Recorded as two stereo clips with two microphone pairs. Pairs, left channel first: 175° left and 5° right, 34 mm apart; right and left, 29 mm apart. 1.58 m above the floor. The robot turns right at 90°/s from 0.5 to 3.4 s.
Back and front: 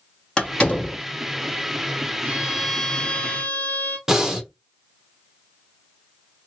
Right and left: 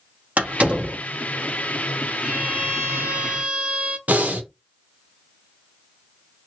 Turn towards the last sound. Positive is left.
turn(degrees=70)